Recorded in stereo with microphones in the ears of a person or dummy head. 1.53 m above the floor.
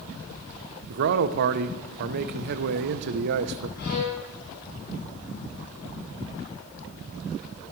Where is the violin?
70° left (ahead or behind), 4 m.